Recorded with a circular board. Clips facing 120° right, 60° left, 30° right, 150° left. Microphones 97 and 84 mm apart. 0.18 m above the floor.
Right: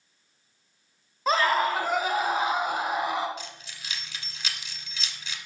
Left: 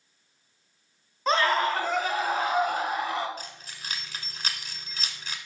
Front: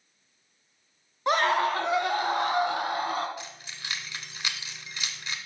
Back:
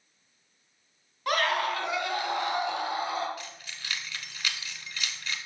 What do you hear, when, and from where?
1.3 s a scream: 40° right, 1.1 m; by 3.3 s 50° right, 1.9 m
3.4 s keys jangling: 35° left, 1.2 m